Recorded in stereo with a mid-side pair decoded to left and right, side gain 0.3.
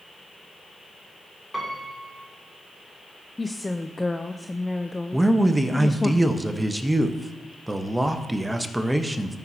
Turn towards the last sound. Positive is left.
turn(degrees=-15)